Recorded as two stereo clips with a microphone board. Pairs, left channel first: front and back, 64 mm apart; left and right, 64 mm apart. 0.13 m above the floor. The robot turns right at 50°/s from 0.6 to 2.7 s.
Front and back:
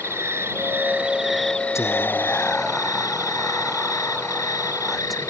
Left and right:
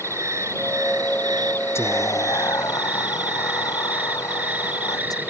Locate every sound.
0.0 s an insect: 130° right; by 5.3 s 25° right
1.8 s whispering: 45° left; by 5.3 s 90° left